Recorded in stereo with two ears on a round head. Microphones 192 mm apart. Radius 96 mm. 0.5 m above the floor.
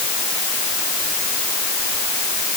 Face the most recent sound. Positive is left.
No sound to turn to.